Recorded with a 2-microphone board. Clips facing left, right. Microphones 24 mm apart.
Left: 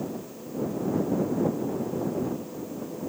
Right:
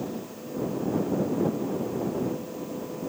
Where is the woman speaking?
I don't hear a woman speaking.